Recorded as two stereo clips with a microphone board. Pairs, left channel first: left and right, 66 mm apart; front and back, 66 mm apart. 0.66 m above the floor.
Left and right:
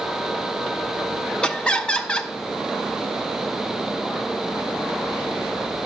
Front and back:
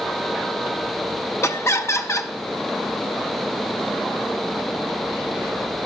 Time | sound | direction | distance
1.4 | laughter | 20° left | 0.7 m